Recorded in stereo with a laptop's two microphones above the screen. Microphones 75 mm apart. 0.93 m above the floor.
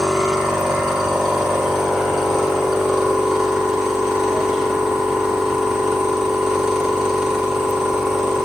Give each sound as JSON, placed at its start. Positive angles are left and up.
{"t": 0.0, "sound": "a machine running", "side_deg": -5, "distance_m": 3.0}